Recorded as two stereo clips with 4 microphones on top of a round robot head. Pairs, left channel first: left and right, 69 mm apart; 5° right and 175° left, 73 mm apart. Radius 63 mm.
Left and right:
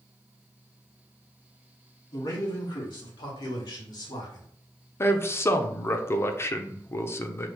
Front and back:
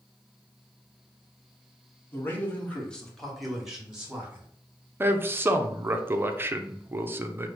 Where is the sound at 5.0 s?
125° left, 0.6 m.